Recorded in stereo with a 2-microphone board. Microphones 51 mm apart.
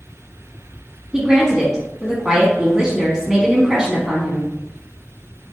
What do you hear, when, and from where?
1.1 s a woman speaking: 15° right (ahead or behind), 1.1 m